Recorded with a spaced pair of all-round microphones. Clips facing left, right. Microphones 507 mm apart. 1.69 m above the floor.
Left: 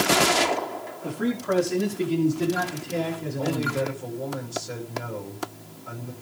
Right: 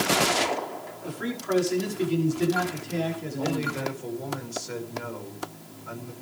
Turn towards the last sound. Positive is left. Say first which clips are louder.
# left 2 dB
turn(degrees=50)  # may be behind; listen again after turning